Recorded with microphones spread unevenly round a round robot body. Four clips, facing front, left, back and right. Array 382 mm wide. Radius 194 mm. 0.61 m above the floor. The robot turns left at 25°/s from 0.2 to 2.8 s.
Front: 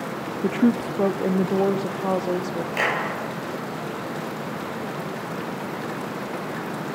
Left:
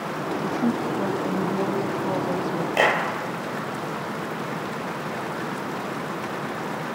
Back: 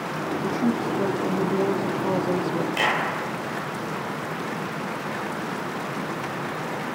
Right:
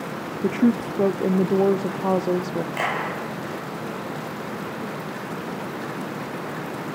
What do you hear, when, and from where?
0.4 s a woman speaking: 50° right, 1.3 m; by 2.7 s 105° right, 1.3 m
2.8 s a clap: 70° left, 3 m